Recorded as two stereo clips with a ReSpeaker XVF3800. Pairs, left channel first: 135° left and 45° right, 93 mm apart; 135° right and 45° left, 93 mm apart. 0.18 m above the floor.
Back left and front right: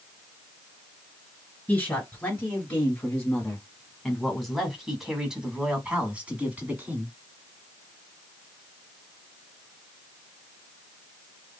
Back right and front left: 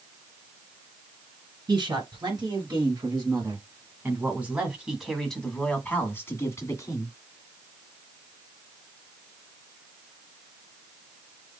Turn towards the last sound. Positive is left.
turn(degrees=-110)